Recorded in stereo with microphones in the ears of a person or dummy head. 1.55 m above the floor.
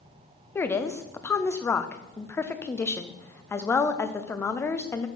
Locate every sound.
0.6 s a woman speaking: 20° left (ahead or behind), 0.6 m